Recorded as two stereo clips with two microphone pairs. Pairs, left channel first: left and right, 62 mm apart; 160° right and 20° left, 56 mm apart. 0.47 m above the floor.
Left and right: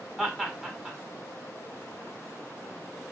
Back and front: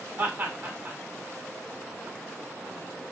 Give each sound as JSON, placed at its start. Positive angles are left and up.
{"t": 0.2, "sound": "laughter", "azimuth_deg": -5, "distance_m": 1.2}